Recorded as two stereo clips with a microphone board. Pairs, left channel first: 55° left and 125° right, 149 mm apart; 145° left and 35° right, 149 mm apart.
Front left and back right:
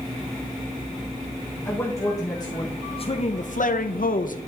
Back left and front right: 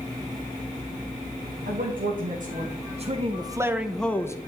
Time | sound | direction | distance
1.6 | a man speaking | 20° right | 1.3 m